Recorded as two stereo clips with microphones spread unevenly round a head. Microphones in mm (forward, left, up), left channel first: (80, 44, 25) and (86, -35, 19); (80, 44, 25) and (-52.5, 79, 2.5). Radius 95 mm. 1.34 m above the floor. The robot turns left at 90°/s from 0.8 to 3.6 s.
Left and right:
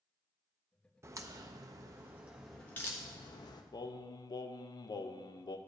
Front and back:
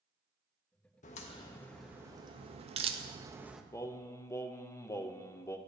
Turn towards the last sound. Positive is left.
turn(degrees=60)